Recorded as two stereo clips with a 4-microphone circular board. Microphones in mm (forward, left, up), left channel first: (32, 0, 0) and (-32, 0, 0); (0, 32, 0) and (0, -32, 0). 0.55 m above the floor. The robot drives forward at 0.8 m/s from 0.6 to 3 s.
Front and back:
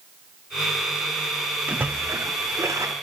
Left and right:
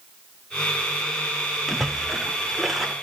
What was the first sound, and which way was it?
A splash, straight behind.